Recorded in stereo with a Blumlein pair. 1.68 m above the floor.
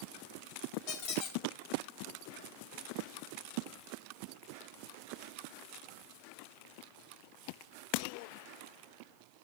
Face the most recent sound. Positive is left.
turn(degrees=40)